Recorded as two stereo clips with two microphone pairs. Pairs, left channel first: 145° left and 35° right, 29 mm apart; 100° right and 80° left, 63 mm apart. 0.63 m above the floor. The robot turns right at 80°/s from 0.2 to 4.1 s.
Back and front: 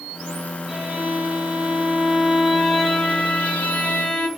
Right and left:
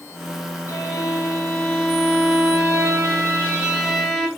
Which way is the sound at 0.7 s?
85° right.